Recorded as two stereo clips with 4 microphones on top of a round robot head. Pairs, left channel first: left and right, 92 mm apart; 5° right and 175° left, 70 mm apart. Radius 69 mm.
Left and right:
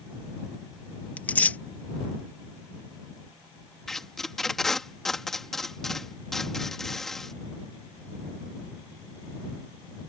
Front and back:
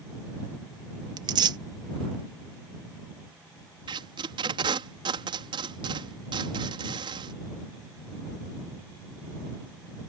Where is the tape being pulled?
175° left.